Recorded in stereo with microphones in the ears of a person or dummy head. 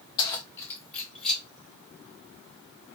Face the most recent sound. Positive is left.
turn(degrees=5)  # may be behind; listen again after turning